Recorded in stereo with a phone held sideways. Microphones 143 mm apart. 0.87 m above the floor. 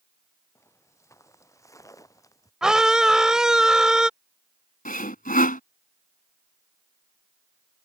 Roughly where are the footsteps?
Centre.